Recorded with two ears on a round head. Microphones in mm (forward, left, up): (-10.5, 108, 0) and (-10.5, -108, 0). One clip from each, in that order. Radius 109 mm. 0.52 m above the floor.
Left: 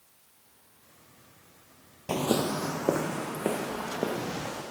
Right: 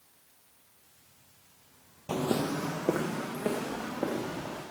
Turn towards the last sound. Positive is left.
turn(degrees=15)  # may be behind; listen again after turning